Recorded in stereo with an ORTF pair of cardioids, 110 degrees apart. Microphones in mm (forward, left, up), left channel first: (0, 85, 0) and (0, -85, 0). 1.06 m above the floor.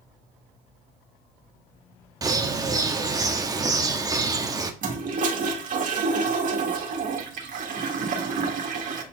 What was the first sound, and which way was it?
A bird, 20° right.